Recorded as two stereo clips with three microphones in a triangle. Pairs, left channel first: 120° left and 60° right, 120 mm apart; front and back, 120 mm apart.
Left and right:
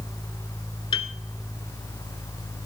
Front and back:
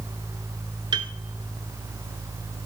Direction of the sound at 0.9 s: 145° left.